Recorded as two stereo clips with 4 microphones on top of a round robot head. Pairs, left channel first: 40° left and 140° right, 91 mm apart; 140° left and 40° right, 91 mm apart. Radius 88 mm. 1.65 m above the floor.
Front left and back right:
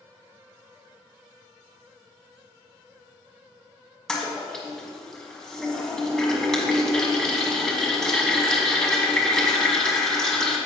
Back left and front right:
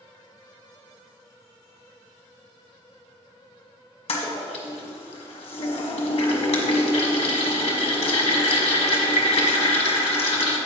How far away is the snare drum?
No snare drum in this recording.